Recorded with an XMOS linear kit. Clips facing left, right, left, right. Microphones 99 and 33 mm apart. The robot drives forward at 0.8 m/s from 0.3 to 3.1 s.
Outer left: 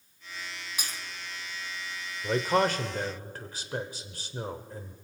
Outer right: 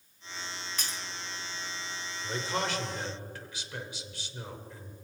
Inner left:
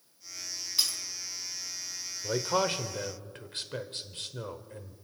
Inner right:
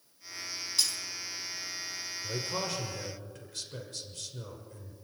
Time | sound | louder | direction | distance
0.8 | breaking glass | outer left 1 dB, inner left 1 dB | 10° left (ahead or behind) | 2.5 m
2.2 | a man speaking | outer left 8 dB, inner left 8 dB | 45° left (ahead or behind) | 1.2 m